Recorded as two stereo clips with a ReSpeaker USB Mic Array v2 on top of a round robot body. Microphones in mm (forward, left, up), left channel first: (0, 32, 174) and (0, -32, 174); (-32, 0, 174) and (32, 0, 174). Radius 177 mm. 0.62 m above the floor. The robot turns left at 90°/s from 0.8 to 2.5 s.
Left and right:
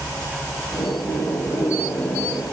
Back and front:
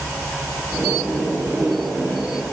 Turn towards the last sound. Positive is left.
No sound to turn to.